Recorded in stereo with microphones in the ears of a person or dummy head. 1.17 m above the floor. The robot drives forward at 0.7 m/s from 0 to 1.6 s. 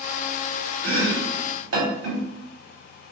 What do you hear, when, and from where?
0.8 s chopping: 85° right, 0.7 m; by 2.2 s 55° right (ahead or behind), 0.8 m